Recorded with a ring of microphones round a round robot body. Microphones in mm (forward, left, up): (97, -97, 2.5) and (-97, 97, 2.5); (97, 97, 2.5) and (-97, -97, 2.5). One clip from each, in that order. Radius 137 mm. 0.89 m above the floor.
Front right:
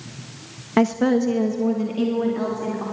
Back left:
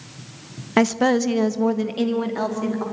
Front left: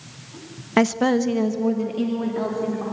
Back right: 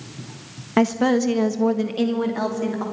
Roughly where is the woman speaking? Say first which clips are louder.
Back left 1 dB, even; left.